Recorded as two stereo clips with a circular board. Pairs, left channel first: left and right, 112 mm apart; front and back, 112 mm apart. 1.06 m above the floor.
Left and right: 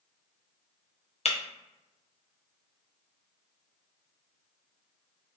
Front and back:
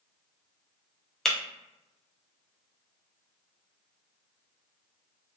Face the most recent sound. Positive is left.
turn(degrees=85)